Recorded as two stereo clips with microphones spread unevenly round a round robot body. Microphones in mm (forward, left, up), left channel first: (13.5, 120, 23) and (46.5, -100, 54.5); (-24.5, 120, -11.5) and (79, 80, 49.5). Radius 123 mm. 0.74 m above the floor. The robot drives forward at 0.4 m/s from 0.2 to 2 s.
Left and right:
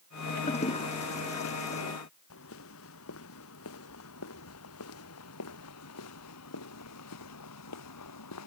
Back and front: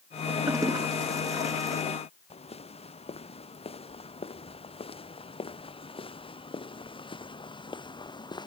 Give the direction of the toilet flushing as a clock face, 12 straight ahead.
11 o'clock.